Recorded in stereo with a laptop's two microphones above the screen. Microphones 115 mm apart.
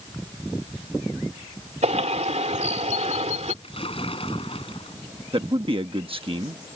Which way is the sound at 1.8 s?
80° right.